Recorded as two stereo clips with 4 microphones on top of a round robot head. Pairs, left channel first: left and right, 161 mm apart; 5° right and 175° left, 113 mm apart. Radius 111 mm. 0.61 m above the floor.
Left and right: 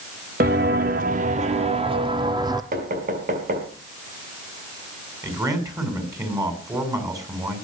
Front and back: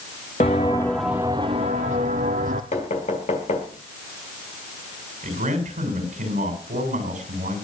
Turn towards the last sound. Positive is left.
turn(degrees=-160)